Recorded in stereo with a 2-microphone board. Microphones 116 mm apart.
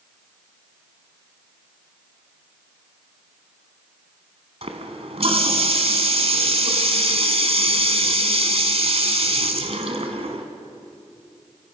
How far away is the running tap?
About 2 m.